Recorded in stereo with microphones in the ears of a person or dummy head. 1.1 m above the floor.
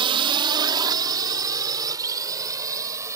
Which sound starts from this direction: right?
A drone, at 0.0 s.